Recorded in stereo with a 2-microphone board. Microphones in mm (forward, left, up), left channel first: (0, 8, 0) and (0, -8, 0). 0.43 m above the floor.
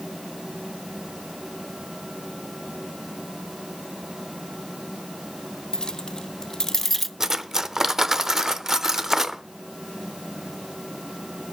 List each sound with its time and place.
5.7 s keys jangling: 55° left (ahead or behind), 1.2 m; by 7.1 s centre (ahead or behind), 0.6 m
7.2 s cutlery clinking: 30° right (ahead or behind), 0.7 m